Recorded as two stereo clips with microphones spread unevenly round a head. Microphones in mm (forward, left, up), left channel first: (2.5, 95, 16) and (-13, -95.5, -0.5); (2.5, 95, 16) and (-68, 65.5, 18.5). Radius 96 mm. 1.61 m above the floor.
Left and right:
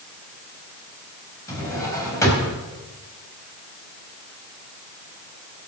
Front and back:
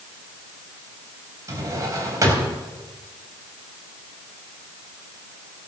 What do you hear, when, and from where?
1.5 s a drawer: 160° left, 3.5 m